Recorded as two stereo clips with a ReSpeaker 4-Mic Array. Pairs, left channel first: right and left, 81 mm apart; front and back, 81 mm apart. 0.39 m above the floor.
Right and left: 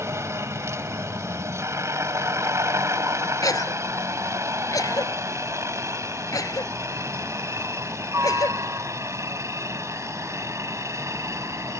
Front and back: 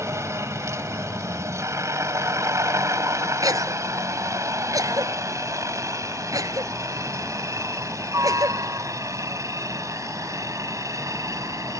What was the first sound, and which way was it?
A helicopter, 135° left.